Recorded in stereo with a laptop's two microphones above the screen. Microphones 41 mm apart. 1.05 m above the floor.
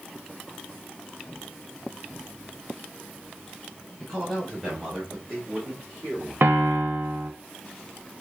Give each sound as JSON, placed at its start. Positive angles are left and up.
{"t": 4.0, "sound": "a man speaking", "side_deg": 0, "distance_m": 1.8}
{"t": 6.4, "sound": "a piano", "side_deg": -60, "distance_m": 0.6}